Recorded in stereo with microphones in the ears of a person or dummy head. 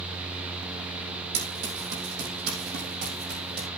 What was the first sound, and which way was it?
Running footsteps, 65° right (ahead or behind).